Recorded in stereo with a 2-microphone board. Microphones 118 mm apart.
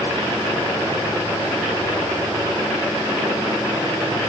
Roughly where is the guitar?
No guitar in this recording.